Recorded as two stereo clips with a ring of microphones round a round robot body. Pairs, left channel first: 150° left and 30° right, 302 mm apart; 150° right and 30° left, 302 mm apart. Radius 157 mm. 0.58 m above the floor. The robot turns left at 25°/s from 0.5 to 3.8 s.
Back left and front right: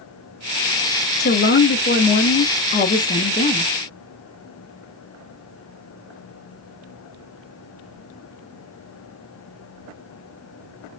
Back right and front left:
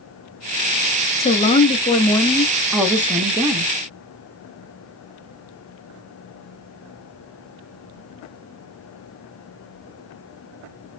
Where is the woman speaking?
160° left, 0.6 m; by 3.7 s 95° left, 0.6 m.